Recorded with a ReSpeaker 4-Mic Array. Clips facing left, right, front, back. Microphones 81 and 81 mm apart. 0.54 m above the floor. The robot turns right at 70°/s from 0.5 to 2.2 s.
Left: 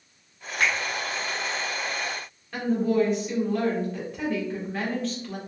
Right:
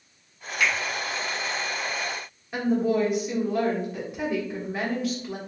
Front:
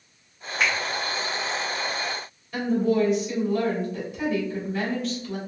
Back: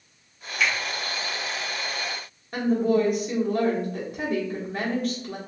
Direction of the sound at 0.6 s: 45° left.